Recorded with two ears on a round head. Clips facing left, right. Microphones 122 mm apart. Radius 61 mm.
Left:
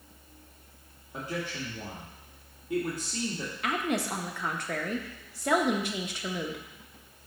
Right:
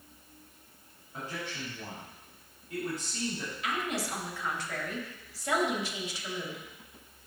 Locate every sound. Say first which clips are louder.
1.1 s a man speaking: left 4 dB; 60° left (ahead or behind), 1.6 m
3.6 s a woman speaking: left 4 dB; 45° left (ahead or behind), 0.9 m